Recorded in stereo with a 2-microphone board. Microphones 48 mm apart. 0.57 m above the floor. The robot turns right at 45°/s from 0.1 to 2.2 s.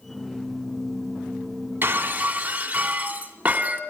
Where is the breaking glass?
45° right (ahead or behind), 2.5 m; by 3.8 s 30° right (ahead or behind), 2.5 m.